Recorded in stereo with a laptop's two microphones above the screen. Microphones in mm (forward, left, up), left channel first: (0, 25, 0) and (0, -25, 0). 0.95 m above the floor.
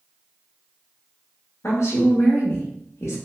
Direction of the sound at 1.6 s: 70° left (ahead or behind).